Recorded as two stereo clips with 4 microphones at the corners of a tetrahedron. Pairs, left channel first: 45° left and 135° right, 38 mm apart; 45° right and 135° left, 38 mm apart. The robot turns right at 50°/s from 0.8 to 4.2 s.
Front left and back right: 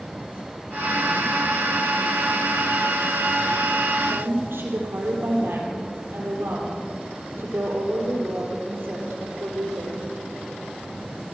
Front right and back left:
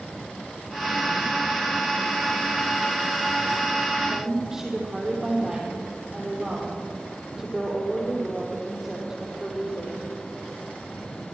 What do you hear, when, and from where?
4.0 s a woman speaking: 155° right, 6.5 m; by 10.0 s 145° right, 6.5 m